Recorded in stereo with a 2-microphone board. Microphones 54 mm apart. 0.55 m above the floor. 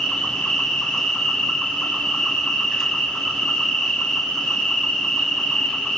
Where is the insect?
15° left (ahead or behind), 4 m.